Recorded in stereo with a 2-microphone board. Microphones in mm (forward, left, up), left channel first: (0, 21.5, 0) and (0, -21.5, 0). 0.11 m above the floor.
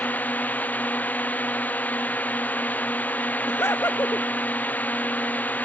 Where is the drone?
40° left (ahead or behind).